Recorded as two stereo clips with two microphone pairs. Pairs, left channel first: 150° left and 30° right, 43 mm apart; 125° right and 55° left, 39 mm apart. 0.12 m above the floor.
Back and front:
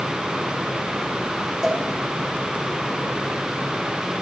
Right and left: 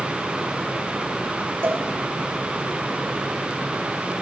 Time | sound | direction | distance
1.6 | a cowbell | 45° left | 5 m